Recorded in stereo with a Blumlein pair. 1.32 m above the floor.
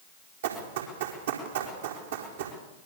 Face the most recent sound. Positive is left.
turn(degrees=-60)